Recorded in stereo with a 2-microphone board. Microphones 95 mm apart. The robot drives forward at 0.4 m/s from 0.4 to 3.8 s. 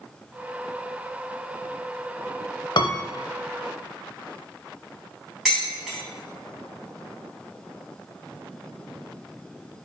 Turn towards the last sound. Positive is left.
turn(degrees=0)  # may be behind; listen again after turning